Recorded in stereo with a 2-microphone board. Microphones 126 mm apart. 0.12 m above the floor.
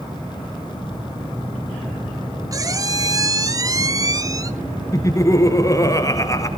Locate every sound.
2.5 s a squeak: 30° right (ahead or behind), 0.6 m
4.9 s laughter: 25° left (ahead or behind), 1.6 m